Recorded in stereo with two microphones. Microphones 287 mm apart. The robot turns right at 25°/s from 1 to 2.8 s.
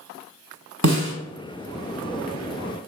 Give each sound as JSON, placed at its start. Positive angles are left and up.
{"t": 0.8, "sound": "a snare drum", "side_deg": -65, "distance_m": 0.9}